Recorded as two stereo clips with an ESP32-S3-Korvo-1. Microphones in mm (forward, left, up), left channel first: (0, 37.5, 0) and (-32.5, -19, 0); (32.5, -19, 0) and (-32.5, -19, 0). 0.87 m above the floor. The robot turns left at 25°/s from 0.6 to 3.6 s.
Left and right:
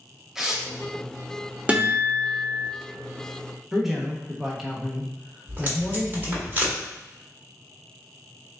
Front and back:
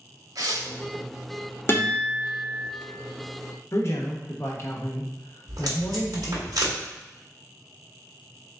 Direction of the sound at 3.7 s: 35° right.